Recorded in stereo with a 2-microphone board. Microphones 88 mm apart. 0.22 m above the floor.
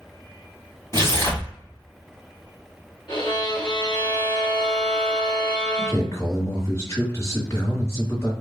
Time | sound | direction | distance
0.9 | tearing paper | 35° left (ahead or behind) | 1.4 m
3.1 | a violin | 60° left (ahead or behind) | 1.5 m
5.8 | a man speaking | 35° left (ahead or behind) | 1.7 m